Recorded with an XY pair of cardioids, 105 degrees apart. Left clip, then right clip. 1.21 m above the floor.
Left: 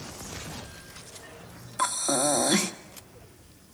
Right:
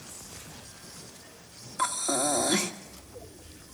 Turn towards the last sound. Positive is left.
turn(degrees=25)